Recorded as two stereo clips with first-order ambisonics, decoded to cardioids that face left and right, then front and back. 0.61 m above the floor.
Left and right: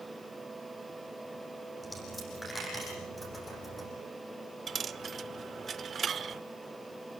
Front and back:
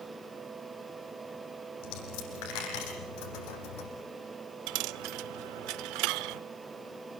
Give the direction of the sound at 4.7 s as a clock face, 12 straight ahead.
5 o'clock.